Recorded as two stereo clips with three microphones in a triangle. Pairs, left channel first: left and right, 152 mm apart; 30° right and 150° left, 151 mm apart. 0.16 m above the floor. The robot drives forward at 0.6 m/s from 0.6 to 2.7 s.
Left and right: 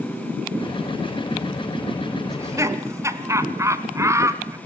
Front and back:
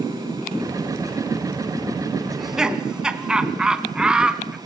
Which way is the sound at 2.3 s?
115° right.